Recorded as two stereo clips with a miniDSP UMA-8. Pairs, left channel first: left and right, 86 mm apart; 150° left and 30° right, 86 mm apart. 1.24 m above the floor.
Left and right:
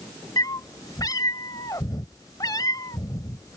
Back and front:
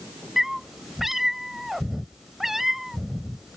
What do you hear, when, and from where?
0.4 s a cat meowing: 55° left